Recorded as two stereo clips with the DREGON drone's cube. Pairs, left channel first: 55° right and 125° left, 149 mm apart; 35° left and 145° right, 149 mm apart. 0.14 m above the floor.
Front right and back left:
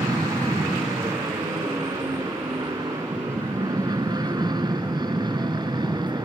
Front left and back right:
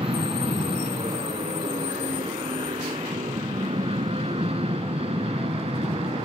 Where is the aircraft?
Straight behind.